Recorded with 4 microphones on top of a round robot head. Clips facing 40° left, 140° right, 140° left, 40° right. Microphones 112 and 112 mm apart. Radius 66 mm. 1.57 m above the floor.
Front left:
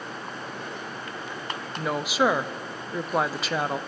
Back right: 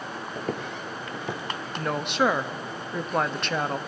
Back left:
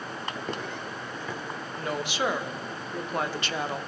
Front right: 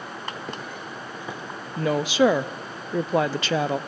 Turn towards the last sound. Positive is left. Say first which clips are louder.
# front left 1 dB, front right 10 dB
turn(degrees=-45)